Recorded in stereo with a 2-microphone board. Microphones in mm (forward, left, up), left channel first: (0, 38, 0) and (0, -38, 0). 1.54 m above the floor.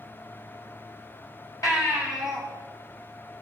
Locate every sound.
1.6 s a baby crying: 45° left (ahead or behind), 5.5 m